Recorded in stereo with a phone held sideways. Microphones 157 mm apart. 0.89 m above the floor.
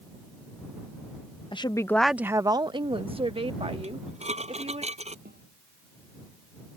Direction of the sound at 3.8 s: 45° right (ahead or behind).